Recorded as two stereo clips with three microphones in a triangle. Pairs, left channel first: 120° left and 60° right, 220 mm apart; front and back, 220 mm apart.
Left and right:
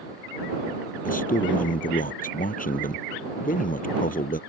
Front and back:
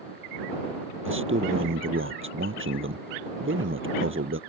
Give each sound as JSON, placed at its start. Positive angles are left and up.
{"t": 1.1, "sound": "a man speaking", "azimuth_deg": 170}